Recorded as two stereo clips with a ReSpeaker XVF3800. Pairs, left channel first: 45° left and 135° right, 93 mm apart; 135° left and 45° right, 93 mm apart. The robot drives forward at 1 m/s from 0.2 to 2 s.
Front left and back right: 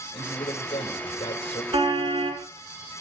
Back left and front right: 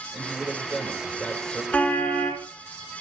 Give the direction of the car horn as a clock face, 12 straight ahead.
5 o'clock.